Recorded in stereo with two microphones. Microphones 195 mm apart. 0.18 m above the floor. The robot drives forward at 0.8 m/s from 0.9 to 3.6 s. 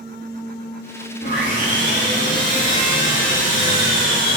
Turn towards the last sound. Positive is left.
turn(degrees=85)